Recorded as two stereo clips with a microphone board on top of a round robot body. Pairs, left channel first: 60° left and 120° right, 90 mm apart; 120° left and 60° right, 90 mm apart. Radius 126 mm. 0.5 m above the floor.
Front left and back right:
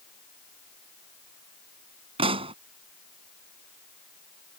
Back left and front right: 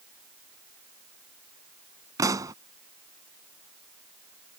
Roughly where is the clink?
No clink in this recording.